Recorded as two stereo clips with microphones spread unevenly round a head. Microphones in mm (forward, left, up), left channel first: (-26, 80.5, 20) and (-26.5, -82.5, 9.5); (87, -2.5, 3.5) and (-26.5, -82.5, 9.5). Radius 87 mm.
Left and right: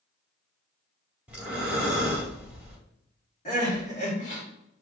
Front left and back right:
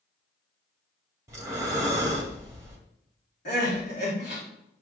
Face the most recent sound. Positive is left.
turn(degrees=45)